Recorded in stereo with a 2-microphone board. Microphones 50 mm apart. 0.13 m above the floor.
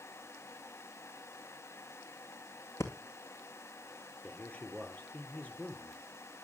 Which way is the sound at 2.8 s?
85° left.